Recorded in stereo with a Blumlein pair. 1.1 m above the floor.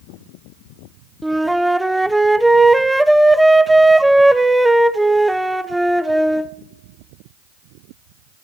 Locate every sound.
1.2 s a flute: 5° right, 0.6 m